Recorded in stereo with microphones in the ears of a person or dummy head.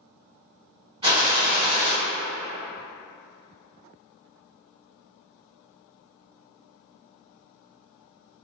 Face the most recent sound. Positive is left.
turn(degrees=-20)  # may be behind; listen again after turning